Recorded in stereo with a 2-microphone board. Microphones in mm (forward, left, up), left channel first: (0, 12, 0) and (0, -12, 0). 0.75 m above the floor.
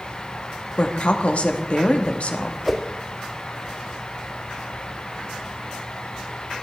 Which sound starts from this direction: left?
A woman speaking, at 0.8 s.